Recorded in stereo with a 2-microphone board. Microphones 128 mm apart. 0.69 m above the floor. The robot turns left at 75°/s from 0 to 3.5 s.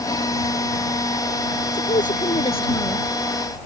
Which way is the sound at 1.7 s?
110° left.